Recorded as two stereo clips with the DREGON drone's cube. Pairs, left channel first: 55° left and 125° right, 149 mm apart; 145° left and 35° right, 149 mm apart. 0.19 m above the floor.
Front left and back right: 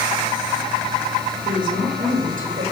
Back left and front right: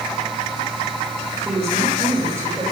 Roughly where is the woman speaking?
Right.